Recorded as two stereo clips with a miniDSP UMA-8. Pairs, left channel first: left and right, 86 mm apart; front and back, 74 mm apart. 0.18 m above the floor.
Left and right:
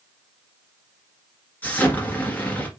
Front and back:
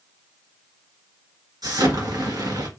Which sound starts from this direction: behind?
An explosion, at 1.6 s.